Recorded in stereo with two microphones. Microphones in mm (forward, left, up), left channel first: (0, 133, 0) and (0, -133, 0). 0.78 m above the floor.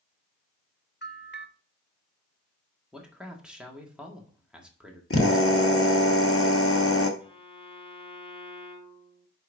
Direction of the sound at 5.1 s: 55° left (ahead or behind).